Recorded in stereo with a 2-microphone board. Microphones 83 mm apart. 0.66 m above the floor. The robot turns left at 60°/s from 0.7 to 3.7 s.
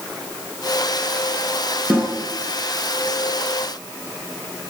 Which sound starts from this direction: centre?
A snare drum, at 1.9 s.